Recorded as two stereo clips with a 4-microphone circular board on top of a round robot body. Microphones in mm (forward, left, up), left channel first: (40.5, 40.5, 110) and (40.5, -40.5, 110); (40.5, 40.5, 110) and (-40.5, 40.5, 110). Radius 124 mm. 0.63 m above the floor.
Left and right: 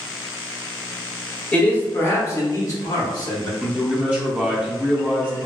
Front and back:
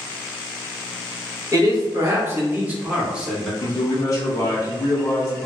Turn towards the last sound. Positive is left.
turn(degrees=-20)